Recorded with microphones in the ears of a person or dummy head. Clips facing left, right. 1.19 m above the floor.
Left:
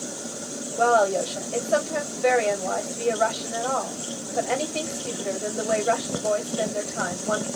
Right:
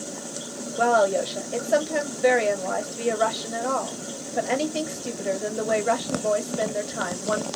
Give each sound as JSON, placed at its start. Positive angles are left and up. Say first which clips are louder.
{"t": 0.8, "sound": "a woman speaking", "louder": "even", "side_deg": -15, "distance_m": 1.3}